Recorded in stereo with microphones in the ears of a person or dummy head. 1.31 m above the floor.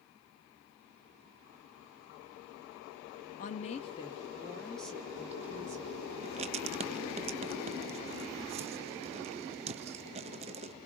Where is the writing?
30° right (ahead or behind), 0.5 m.